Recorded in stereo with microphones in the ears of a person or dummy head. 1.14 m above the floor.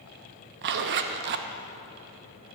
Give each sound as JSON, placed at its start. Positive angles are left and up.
{"t": 0.6, "sound": "a zipper", "side_deg": -60, "distance_m": 0.7}